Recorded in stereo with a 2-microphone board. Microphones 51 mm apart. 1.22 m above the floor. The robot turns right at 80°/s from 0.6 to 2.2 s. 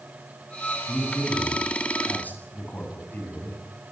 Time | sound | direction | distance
0.9 | a man speaking | 35° left (ahead or behind) | 8 m